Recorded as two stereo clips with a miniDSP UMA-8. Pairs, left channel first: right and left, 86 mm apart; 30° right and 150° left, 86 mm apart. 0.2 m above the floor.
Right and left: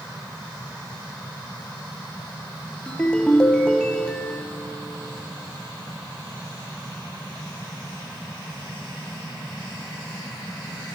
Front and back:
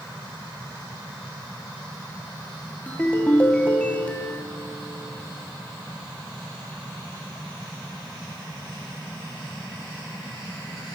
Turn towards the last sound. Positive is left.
turn(degrees=-40)